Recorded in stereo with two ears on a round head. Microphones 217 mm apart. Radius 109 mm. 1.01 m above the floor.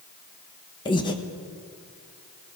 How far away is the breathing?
About 1.1 m.